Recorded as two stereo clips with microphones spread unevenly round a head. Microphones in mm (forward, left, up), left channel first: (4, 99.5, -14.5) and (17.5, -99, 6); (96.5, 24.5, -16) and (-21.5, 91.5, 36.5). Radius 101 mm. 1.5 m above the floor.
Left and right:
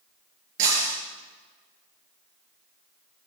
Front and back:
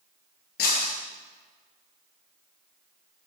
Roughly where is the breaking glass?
Ahead right.